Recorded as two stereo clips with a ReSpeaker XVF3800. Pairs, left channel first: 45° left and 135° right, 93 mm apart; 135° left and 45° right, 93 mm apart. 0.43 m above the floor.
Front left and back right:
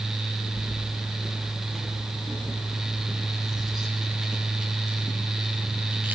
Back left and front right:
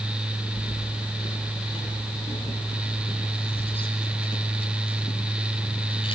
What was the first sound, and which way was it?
Keys jangling, 125° left.